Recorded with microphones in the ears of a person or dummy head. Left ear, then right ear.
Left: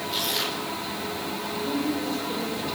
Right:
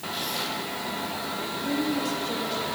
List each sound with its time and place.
0.1 s tearing paper: 25° left (ahead or behind), 5.5 m
1.4 s a woman speaking: 90° right, 8 m